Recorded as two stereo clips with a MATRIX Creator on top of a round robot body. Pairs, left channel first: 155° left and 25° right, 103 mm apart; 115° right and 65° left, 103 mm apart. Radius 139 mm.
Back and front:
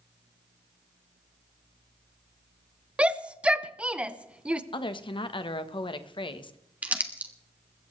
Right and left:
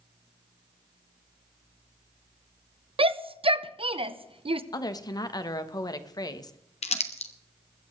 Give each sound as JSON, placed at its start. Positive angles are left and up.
{"t": 3.0, "sound": "a shout", "azimuth_deg": 55, "distance_m": 1.1}
{"t": 4.7, "sound": "a woman speaking", "azimuth_deg": -165, "distance_m": 1.3}
{"t": 6.8, "sound": "crumpling", "azimuth_deg": -100, "distance_m": 1.3}